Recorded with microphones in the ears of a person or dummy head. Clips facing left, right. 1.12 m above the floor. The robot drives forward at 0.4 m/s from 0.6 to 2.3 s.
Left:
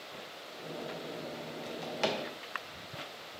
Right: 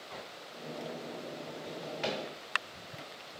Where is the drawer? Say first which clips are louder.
Left 3 dB; 60° left (ahead or behind), 0.6 m; by 2.2 s 55° left (ahead or behind), 0.6 m.